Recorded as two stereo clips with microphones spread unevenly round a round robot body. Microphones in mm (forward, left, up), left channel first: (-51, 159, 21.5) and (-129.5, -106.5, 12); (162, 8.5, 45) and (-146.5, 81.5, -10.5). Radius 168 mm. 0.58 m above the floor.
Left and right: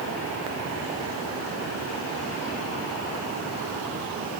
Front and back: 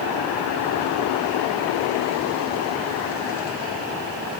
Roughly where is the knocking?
I don't hear knocking.